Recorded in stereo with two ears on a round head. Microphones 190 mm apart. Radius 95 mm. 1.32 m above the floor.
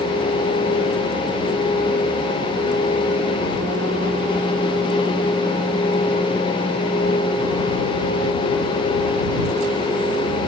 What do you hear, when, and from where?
Only background noise.